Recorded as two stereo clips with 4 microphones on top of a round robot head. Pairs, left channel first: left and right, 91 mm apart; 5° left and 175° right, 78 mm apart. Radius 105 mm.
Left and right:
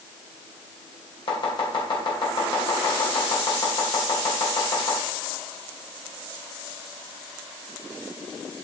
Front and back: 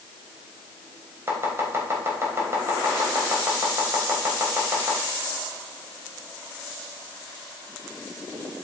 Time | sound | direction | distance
1.3 | chopping | 130° left | 3.5 m